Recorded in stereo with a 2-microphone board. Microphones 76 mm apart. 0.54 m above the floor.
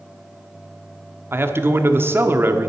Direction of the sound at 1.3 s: 35° right (ahead or behind).